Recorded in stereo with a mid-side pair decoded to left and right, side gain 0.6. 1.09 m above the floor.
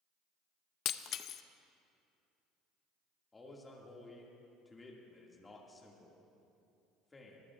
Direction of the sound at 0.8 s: 55° left.